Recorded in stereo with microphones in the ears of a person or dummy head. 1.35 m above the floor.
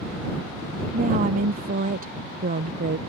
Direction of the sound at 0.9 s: 45° right (ahead or behind).